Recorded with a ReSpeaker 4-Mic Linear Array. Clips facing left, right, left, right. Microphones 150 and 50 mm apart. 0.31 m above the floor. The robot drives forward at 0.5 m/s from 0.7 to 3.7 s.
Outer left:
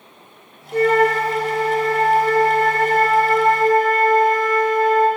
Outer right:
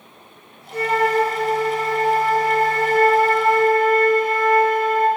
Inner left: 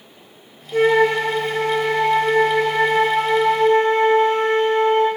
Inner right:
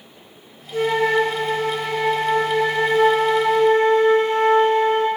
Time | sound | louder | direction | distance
0.7 | a flute | outer left 3 dB, inner left 3 dB | 60° left (ahead or behind) | 1.1 m